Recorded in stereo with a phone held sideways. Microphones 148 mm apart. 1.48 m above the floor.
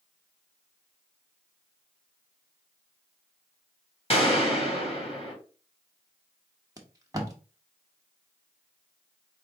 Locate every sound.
4.1 s a gunshot: 40° left (ahead or behind), 1.5 m
6.8 s tape being pulled: 25° right (ahead or behind), 0.8 m